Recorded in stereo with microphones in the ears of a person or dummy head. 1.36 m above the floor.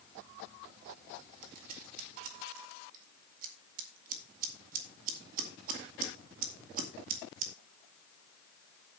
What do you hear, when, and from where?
1.4 s scissors: 45° right (ahead or behind), 2 m